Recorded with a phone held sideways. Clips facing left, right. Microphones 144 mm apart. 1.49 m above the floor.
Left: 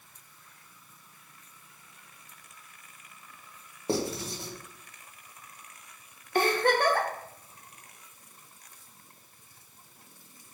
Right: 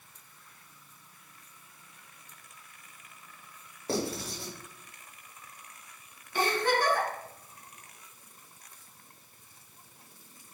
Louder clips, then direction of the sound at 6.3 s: Left 3 dB; 60° left (ahead or behind).